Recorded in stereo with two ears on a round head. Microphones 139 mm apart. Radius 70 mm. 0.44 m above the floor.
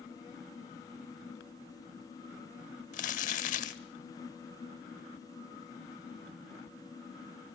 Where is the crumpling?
50° left (ahead or behind), 0.8 m.